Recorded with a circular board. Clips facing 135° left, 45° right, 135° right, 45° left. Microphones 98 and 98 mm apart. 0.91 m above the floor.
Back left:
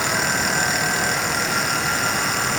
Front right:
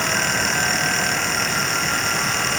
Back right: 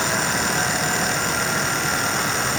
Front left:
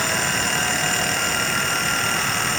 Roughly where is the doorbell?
I don't hear a doorbell.